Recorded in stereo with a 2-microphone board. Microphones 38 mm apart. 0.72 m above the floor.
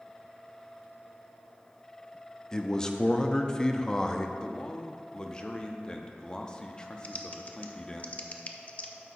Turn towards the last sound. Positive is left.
turn(degrees=35)  # may be behind; listen again after turning